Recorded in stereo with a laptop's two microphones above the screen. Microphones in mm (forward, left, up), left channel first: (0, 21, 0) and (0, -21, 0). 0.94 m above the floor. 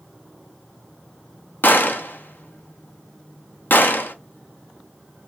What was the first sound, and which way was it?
A gunshot, 55° left (ahead or behind).